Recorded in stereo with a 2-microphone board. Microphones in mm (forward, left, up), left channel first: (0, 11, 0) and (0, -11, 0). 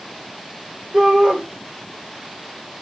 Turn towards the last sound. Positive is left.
turn(degrees=-55)  # may be behind; listen again after turning